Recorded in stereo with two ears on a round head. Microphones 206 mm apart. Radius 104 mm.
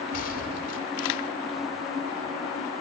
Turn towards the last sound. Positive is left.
turn(degrees=40)  # may be behind; listen again after turning